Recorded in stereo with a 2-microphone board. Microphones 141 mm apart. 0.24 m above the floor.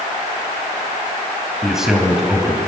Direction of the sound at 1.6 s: 5° right (ahead or behind).